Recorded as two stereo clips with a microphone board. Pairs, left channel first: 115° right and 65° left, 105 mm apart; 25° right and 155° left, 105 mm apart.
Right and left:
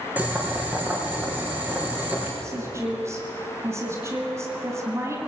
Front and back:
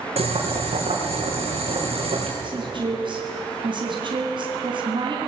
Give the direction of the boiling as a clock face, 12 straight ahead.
7 o'clock.